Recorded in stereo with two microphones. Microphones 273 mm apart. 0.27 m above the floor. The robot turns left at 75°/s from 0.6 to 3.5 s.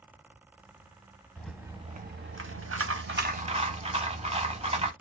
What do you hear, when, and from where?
1.4 s a rattle: 10° left, 0.8 m; by 4.9 s 150° right, 0.8 m